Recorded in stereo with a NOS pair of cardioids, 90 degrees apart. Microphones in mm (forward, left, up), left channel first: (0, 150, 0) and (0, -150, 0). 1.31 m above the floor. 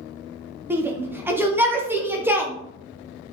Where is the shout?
5° right, 0.7 m.